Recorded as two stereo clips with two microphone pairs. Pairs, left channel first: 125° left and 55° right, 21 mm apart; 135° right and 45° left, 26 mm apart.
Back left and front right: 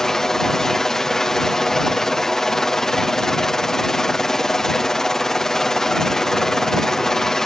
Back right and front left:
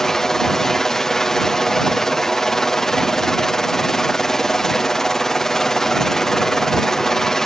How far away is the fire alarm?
I don't hear a fire alarm.